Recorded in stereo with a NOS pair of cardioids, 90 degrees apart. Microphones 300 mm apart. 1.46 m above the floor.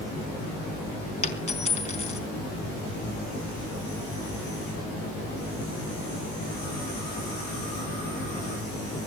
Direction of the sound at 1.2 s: 20° left.